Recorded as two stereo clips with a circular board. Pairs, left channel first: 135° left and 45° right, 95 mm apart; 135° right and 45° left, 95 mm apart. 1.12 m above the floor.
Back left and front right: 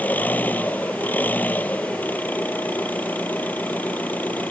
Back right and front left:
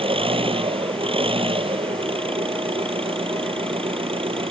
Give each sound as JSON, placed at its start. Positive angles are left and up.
{"t": 0.0, "sound": "an engine running", "azimuth_deg": 60}